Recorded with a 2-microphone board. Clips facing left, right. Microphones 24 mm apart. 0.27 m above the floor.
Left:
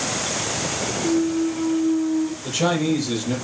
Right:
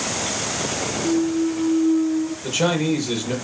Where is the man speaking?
35° right (ahead or behind), 6.5 m.